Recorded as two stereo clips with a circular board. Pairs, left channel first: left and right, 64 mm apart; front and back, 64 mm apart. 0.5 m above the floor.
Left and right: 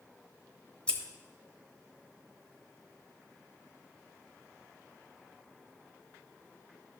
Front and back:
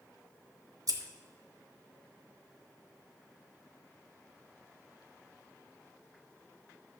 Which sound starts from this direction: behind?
Scissors, at 0.9 s.